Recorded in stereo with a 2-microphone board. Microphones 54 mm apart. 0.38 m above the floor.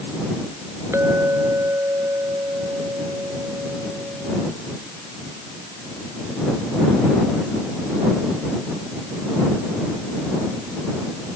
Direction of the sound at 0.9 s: 60° right (ahead or behind).